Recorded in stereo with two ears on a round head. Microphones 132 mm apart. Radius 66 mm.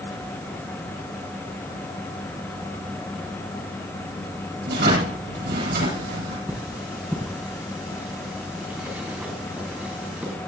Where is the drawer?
75° right (ahead or behind), 8.5 m.